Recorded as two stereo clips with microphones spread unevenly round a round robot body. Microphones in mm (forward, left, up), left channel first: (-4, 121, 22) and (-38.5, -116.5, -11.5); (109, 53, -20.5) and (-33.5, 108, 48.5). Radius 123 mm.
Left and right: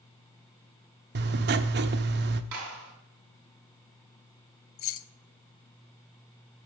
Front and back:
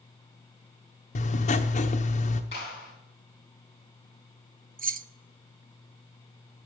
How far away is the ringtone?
I don't hear a ringtone.